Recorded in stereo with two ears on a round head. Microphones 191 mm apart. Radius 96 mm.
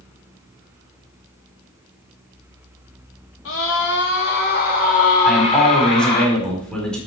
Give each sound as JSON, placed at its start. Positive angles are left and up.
{"t": 3.5, "sound": "a scream", "side_deg": 70, "distance_m": 3.0}
{"t": 5.2, "sound": "a man speaking", "side_deg": 5, "distance_m": 4.5}